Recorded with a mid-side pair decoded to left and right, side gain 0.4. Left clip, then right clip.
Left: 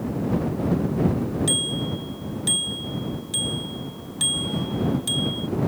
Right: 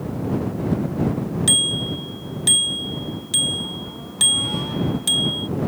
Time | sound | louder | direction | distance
1.5 | a bicycle bell | right 8 dB | 50° right | ?